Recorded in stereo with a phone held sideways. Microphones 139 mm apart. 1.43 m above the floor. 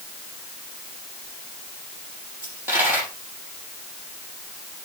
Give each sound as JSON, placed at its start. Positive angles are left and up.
{"t": 2.4, "sound": "a dropped coin", "side_deg": -15, "distance_m": 6.5}